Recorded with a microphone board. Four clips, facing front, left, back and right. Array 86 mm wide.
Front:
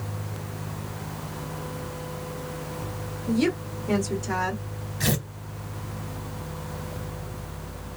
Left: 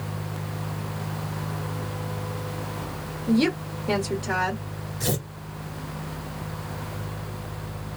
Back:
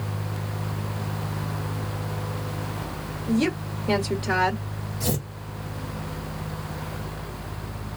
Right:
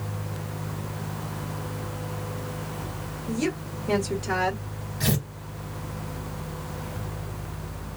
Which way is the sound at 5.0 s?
20° right.